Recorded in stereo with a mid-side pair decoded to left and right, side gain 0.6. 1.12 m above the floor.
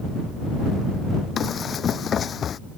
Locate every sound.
1.4 s running footsteps: 40° left